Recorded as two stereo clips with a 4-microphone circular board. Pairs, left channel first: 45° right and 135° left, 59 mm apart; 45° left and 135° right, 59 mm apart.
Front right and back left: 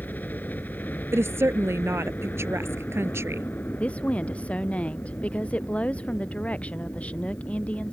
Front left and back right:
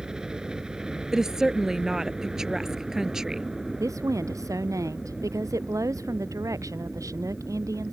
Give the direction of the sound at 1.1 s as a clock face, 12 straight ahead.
7 o'clock.